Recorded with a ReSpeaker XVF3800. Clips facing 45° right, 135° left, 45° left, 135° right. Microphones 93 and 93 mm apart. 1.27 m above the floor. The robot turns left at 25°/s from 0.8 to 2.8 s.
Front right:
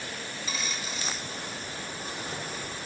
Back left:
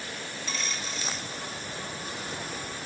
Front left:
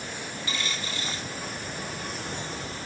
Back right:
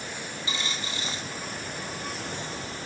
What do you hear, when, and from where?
0.5 s a dropped coin: 120° right, 0.8 m; by 1.3 s 135° right, 0.8 m